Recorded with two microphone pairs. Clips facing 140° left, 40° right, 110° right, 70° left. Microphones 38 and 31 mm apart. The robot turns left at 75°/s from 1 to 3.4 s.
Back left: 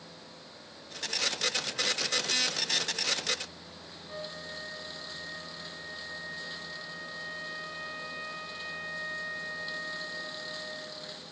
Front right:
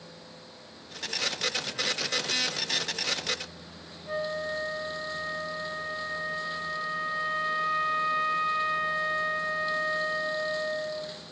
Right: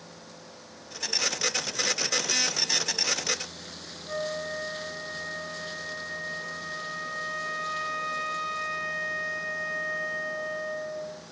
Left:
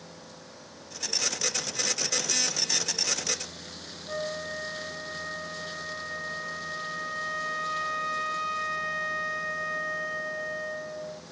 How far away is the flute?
About 1.7 m.